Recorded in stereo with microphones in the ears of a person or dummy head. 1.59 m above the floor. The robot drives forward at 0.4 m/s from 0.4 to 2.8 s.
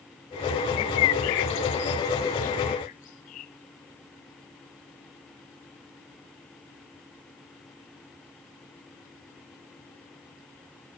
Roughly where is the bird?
Left.